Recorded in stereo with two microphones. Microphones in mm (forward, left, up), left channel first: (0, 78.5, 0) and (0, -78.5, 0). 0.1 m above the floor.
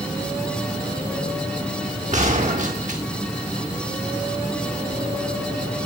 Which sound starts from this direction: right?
A gunshot, at 2.1 s.